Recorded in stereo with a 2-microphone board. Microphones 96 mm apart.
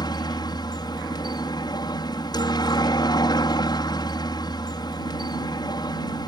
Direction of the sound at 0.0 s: 50° left (ahead or behind).